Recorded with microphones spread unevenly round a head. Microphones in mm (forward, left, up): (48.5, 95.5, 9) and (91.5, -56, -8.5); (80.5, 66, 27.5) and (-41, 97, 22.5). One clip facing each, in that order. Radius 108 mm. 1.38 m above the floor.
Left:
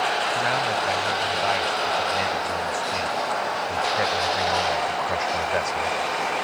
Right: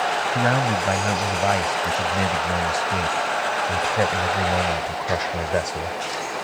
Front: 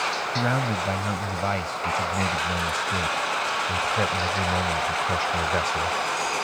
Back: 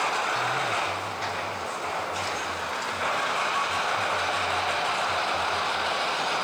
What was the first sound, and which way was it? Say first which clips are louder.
A man speaking: right 3 dB, front 2 dB; 30° right.